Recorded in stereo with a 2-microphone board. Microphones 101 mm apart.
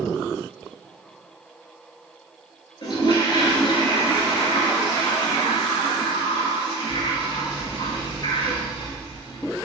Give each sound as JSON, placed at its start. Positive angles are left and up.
{"t": 2.8, "sound": "a toilet flushing", "side_deg": 50, "distance_m": 1.3}